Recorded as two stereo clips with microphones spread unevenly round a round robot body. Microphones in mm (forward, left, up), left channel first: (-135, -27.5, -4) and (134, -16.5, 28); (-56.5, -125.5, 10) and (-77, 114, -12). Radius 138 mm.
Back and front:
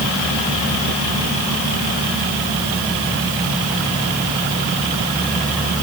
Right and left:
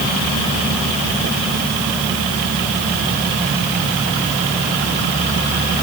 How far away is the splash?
I don't hear a splash.